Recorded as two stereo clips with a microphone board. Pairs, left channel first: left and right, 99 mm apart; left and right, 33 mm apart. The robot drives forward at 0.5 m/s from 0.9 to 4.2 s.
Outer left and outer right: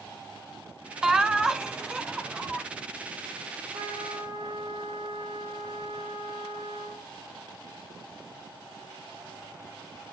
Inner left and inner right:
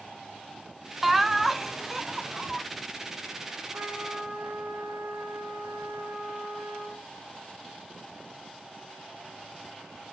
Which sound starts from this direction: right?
A trumpet, at 3.7 s.